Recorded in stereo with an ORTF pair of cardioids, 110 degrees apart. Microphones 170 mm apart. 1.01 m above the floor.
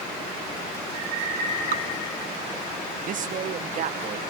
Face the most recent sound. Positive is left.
turn(degrees=-55)